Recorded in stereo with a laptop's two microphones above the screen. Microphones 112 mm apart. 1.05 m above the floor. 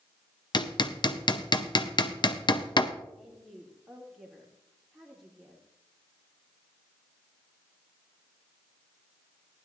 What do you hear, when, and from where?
0.5 s hammering: 45° left (ahead or behind), 0.6 m
3.2 s a woman speaking: centre (ahead or behind), 2.5 m